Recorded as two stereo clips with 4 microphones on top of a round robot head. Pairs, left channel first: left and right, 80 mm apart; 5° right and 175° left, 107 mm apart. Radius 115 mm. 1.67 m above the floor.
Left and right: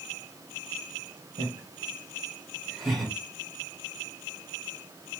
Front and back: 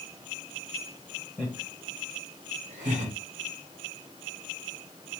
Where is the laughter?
95° right, 0.9 m; by 3.1 s 175° right, 1.2 m.